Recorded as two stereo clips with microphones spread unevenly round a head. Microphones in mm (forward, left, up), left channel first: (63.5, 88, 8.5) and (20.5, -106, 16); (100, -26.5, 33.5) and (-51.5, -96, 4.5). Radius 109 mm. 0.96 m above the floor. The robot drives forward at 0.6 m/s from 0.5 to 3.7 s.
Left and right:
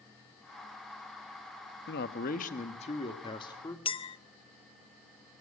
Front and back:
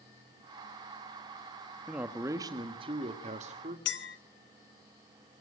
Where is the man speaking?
120° left, 1.1 m; by 3.8 s 150° left, 1.8 m.